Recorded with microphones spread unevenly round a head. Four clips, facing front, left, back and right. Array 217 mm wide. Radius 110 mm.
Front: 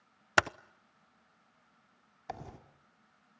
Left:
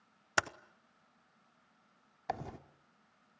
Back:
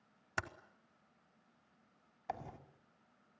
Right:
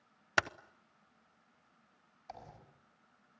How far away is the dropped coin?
About 2 m.